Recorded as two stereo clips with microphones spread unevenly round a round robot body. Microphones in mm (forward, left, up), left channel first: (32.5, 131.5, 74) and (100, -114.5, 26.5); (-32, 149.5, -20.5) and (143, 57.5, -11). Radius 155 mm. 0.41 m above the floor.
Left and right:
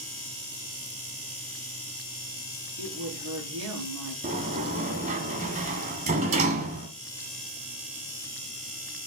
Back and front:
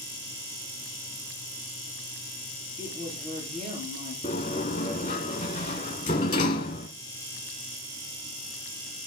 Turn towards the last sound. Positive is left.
turn(degrees=-140)